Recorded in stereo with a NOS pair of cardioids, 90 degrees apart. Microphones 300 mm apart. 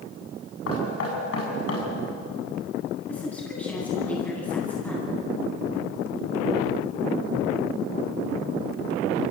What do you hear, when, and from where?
0.7 s knocking: 50° left, 8.5 m
3.1 s a woman speaking: 5° left, 9 m